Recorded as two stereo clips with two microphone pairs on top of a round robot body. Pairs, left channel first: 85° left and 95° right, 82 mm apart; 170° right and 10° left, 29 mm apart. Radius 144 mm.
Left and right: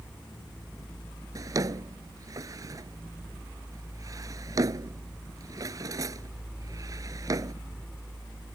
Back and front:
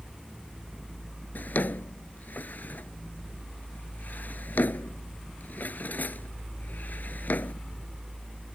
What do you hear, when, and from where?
1.4 s a drawer: 140° right